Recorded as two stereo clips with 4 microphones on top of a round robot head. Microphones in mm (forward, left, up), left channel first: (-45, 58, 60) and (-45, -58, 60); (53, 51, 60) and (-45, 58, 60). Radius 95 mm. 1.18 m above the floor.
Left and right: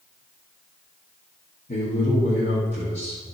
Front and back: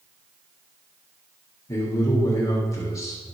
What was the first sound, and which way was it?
A man speaking, 50° left.